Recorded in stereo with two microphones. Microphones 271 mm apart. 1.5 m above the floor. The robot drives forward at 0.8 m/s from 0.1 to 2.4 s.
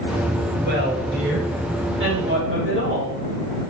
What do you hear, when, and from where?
0.6 s a woman speaking: 40° right (ahead or behind), 6 m; by 3.2 s 50° right (ahead or behind), 5 m